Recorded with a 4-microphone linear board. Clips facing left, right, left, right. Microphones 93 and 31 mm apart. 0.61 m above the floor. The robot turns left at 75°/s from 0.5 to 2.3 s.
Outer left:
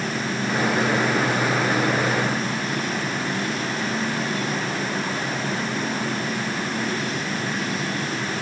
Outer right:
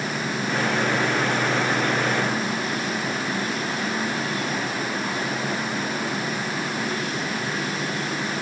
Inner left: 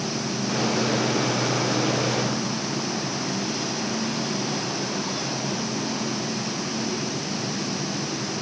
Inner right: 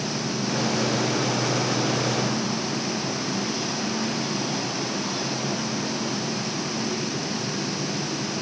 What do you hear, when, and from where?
Only background noise.